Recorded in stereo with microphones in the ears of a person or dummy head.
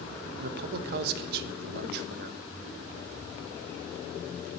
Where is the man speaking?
60° right (ahead or behind), 1.0 m.